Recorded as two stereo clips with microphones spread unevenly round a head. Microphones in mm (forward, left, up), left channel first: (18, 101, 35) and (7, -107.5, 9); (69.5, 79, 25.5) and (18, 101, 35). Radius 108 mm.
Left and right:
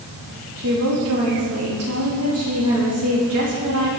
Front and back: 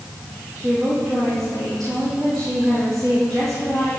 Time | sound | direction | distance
0.6 | a woman speaking | 115° right | 3.5 m